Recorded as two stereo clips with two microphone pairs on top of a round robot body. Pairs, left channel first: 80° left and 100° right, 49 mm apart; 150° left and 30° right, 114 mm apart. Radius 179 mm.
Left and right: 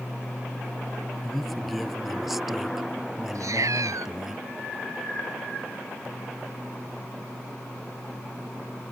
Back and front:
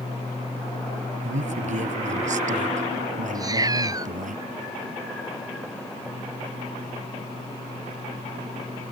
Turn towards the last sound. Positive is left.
turn(degrees=-90)